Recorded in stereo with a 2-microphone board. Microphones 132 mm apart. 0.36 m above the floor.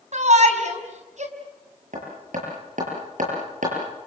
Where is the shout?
65° right (ahead or behind), 3 m.